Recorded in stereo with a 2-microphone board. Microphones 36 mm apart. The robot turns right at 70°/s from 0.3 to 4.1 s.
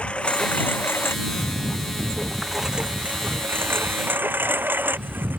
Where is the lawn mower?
30° left; by 5.4 s 65° right.